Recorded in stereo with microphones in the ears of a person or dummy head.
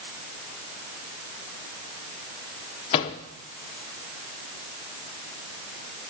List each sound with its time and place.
2.9 s a microwave: 35° left (ahead or behind), 0.5 m